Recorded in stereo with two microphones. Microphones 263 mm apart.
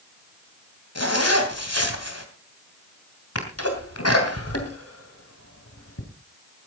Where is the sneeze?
65° left (ahead or behind), 2.5 m.